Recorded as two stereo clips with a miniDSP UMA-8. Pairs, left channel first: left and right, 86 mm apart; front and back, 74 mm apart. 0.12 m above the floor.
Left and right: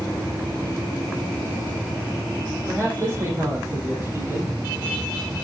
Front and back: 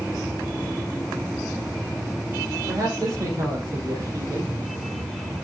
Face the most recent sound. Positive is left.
turn(degrees=-150)